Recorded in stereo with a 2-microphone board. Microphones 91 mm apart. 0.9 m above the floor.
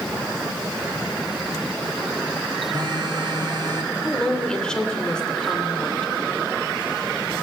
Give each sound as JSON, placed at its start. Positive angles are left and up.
{"t": 2.7, "sound": "a phone buzzing", "side_deg": -50, "distance_m": 1.8}
{"t": 4.0, "sound": "a woman speaking", "side_deg": 10, "distance_m": 2.5}